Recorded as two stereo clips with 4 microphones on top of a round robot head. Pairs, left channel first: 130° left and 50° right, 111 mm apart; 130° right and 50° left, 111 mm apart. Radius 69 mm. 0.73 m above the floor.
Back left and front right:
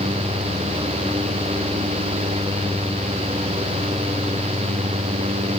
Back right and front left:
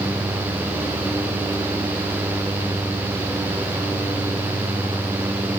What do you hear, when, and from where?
Only background noise.